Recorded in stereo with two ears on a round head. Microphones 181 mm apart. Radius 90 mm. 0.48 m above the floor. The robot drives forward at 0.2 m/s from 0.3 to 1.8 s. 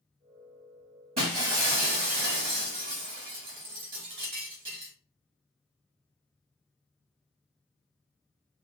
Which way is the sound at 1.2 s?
45° right (ahead or behind).